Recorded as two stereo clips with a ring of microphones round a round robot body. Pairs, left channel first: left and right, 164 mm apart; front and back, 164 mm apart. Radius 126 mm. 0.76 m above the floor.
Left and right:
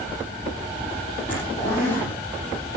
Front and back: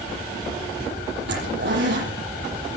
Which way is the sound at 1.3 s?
170° left.